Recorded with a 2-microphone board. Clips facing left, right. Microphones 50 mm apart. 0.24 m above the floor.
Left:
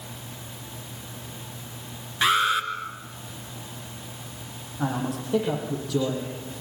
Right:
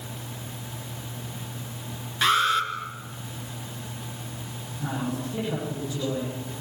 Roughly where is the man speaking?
Left.